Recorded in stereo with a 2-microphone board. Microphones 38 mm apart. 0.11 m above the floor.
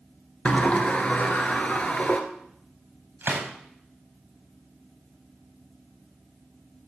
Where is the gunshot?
55° right (ahead or behind), 4.5 m.